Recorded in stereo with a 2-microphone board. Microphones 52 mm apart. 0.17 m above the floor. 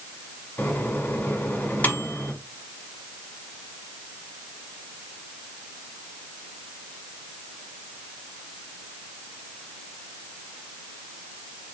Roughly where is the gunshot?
No gunshot in this recording.